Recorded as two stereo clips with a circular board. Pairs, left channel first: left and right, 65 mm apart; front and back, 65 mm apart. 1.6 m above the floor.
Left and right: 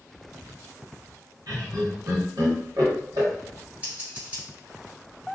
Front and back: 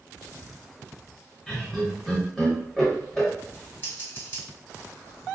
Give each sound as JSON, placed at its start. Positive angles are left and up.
{"t": 1.5, "sound": "laughter", "azimuth_deg": -80, "distance_m": 1.3}
{"t": 3.8, "sound": "scissors", "azimuth_deg": -30, "distance_m": 1.3}